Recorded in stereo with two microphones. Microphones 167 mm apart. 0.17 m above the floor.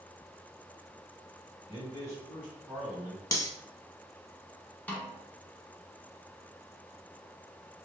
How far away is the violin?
No violin in this recording.